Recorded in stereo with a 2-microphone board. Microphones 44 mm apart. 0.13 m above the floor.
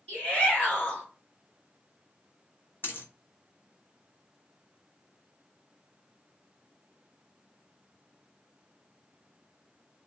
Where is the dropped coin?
50° left (ahead or behind), 0.8 m.